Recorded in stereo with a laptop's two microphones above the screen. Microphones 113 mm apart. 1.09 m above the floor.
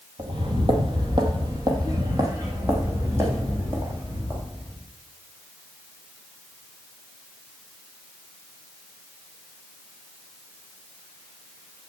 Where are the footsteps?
55° right (ahead or behind), 1.7 m; by 4.8 s 15° right (ahead or behind), 4 m.